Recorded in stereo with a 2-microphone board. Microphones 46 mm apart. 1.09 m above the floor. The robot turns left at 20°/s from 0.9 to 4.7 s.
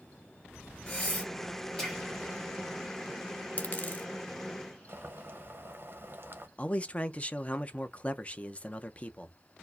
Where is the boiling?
45° right (ahead or behind), 0.7 m.